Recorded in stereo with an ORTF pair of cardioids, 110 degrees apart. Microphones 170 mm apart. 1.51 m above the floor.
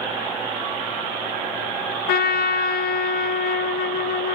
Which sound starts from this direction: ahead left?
A trumpet, at 2.1 s.